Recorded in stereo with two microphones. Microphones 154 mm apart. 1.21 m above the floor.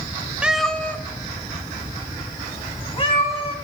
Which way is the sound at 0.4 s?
5° right (ahead or behind).